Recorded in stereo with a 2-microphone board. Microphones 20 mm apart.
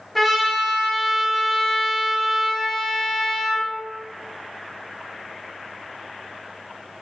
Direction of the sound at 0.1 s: Centre (ahead or behind).